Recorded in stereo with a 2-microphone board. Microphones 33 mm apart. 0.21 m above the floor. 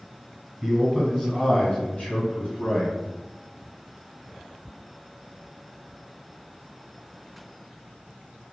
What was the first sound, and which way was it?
A man speaking, centre (ahead or behind).